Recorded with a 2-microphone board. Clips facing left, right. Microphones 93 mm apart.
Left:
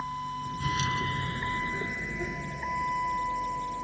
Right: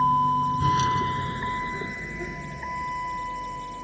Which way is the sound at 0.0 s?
60° right (ahead or behind).